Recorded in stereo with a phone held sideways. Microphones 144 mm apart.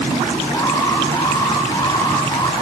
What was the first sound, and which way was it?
An alarm, 25° left (ahead or behind).